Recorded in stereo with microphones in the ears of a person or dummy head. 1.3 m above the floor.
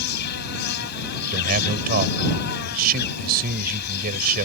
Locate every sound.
0.0 s an insect: 55° left (ahead or behind)
1.3 s a man speaking: 50° right (ahead or behind)